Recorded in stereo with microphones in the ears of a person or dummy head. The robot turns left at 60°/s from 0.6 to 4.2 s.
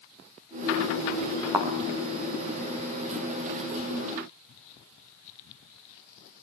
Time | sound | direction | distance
1.5 | a thud | 10° right (ahead or behind) | 3.5 m